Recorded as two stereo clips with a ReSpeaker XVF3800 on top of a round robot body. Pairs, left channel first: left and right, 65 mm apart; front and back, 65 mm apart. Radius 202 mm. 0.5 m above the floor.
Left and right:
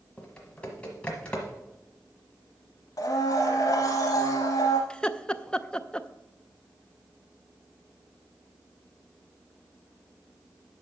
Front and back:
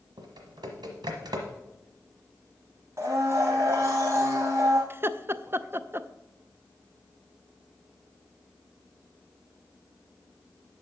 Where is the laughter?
160° left, 0.7 m.